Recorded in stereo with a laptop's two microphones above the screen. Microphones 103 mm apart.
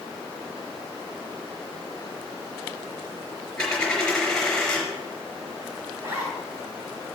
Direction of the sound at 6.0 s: 25° right (ahead or behind).